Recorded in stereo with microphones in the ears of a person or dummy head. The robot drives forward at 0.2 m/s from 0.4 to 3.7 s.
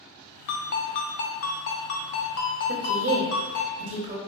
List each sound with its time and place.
0.5 s a ringtone: 50° left (ahead or behind), 0.7 m; by 3.7 s 40° left (ahead or behind), 0.8 m
2.7 s a woman speaking: 50° right (ahead or behind), 0.8 m; by 4.2 s 40° right (ahead or behind), 0.9 m